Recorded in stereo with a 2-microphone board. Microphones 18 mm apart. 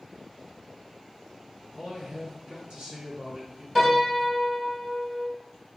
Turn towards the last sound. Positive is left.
turn(degrees=-10)  # may be behind; listen again after turning